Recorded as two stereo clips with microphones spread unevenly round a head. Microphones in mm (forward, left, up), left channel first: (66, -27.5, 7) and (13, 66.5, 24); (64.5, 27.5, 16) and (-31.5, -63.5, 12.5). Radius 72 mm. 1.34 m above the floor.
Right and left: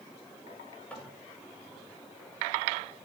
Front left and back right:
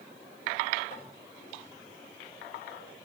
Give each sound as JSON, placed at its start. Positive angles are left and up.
{"t": 0.9, "sound": "tapping", "azimuth_deg": 20, "distance_m": 8.0}